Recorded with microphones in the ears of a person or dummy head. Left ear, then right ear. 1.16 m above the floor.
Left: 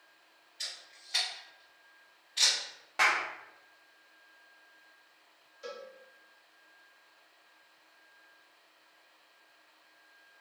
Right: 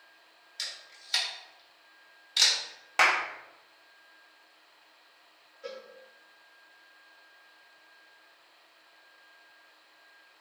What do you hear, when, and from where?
0.6 s a camera shutter: 65° right (ahead or behind), 1.2 m
3.0 s a clap: 40° right (ahead or behind), 0.5 m
5.6 s a cowbell: 30° left (ahead or behind), 0.6 m